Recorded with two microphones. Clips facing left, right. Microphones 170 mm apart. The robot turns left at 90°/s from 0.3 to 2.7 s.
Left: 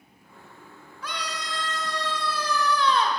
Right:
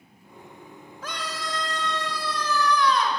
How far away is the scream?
About 1.3 m.